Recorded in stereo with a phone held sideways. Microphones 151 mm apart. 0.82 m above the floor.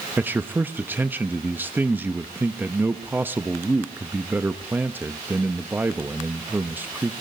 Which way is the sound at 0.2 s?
10° right (ahead or behind).